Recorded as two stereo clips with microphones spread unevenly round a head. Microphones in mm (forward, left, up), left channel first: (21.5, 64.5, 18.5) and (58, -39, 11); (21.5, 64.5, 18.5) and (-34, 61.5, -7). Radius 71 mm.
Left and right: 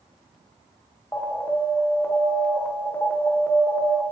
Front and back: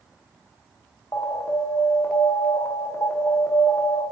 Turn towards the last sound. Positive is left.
turn(degrees=40)